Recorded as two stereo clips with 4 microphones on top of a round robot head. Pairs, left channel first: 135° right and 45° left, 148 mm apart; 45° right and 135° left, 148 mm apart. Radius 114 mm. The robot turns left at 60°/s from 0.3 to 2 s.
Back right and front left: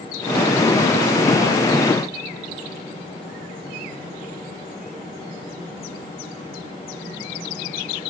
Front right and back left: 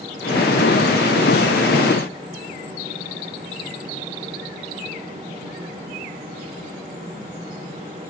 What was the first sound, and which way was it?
Only background noise.